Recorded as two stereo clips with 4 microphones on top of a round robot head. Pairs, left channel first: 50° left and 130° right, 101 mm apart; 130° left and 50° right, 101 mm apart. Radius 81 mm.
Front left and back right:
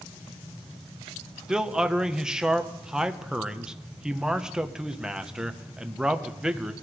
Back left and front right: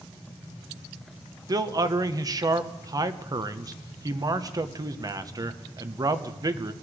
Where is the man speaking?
55° right, 1.0 m.